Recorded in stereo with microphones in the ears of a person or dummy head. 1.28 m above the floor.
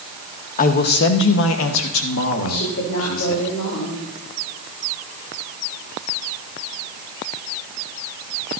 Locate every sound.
0.6 s a man speaking: 40° left (ahead or behind), 1.1 m; by 3.4 s 70° left (ahead or behind), 2 m
2.4 s a woman speaking: 55° left (ahead or behind), 3 m